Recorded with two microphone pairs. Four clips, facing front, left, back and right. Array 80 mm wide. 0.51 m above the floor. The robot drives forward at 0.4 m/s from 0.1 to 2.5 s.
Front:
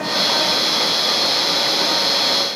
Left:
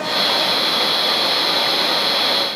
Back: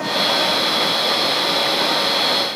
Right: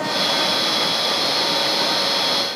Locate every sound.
Only background noise.